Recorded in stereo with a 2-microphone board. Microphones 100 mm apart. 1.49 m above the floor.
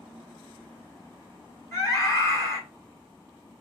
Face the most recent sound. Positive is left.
turn(degrees=35)  # may be behind; listen again after turning